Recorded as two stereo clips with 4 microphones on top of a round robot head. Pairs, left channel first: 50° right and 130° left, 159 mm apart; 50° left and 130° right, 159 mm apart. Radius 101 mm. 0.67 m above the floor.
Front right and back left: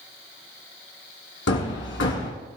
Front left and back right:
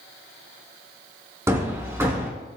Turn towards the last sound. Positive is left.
turn(degrees=-60)